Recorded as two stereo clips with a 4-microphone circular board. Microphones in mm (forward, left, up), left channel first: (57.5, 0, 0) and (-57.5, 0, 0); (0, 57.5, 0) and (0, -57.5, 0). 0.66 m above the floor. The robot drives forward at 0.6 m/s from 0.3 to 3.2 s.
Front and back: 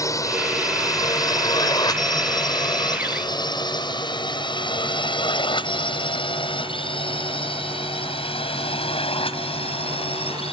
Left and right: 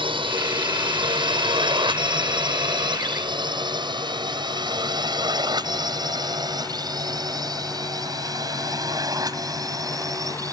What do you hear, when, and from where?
0.0 s a drone: 55° right; by 10.5 s 30° right